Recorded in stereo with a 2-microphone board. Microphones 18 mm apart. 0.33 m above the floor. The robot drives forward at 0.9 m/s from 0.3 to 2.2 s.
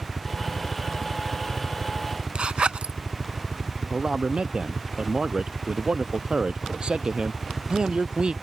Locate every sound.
0.0 s a helicopter: 35° right (ahead or behind); by 8.4 s 30° right (ahead or behind)
2.4 s a zipper: 85° right
3.9 s a man speaking: 55° right (ahead or behind)